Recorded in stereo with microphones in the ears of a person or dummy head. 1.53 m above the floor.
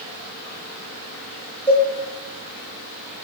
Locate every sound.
1.7 s a cowbell: 10° left (ahead or behind), 2.5 m